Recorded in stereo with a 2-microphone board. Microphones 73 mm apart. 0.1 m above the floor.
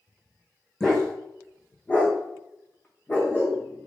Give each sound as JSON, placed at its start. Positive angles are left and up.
{"t": 0.8, "sound": "a dog barking", "side_deg": 10, "distance_m": 1.6}